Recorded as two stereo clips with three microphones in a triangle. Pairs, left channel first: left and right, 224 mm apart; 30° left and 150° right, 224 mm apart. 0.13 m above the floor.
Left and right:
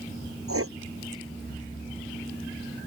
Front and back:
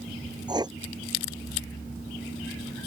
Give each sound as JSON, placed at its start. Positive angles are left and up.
{"t": 0.5, "sound": "writing", "azimuth_deg": -80}